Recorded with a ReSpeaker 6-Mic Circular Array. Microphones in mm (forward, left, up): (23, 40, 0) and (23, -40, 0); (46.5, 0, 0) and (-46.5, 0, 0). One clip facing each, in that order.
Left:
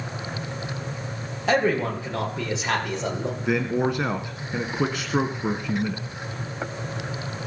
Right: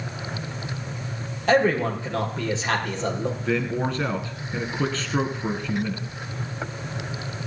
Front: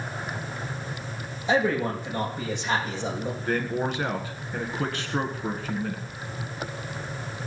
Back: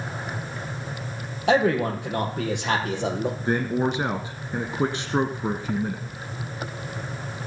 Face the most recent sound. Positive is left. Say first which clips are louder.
# left 3 dB, back 3 dB
turn(degrees=145)